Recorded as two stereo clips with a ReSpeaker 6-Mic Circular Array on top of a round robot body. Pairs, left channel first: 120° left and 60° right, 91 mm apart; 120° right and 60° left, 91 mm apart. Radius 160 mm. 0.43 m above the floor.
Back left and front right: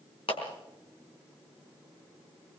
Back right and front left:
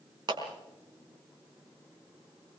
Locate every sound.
0.3 s a clap: 100° left, 4.5 m